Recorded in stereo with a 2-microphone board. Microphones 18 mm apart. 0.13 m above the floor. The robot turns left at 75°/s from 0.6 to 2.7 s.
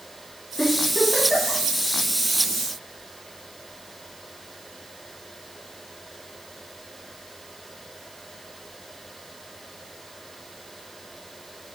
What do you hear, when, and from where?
0.6 s a giggle: 45° left (ahead or behind), 8.5 m; by 1.6 s 60° left (ahead or behind), 8.5 m